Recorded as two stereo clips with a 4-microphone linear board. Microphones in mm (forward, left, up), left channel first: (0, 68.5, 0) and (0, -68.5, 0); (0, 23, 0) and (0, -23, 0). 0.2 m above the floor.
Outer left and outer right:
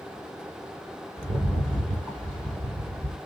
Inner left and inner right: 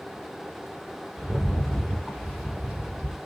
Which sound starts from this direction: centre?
A rattle, at 1.2 s.